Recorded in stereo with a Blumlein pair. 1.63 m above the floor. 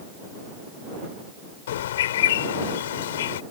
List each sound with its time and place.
1.7 s a bird: 60° left